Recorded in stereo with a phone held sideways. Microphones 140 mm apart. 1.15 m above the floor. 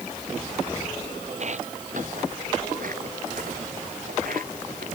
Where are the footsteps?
50° right (ahead or behind); by 4.9 s 75° right (ahead or behind).